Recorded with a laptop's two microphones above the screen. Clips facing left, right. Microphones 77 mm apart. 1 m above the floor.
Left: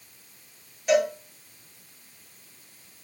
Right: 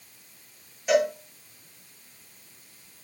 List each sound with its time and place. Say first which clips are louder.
0.9 s a cowbell: even; 5° right (ahead or behind), 4 m